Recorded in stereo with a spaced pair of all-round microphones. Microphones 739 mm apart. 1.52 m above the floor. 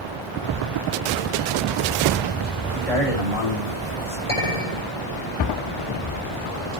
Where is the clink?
45° left (ahead or behind), 5.5 m.